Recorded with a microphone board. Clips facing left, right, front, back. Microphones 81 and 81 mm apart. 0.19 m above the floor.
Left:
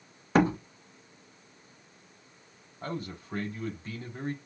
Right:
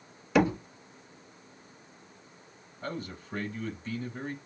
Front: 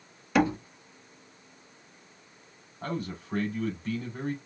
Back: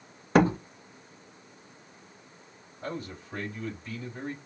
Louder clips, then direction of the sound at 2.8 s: Left 1 dB, front 3 dB; 40° left.